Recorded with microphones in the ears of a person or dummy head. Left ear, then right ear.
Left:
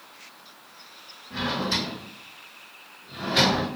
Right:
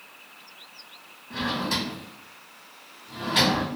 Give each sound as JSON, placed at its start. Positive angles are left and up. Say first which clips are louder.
{"t": 1.3, "sound": "a drawer", "louder": "left 1 dB", "side_deg": -25, "distance_m": 1.9}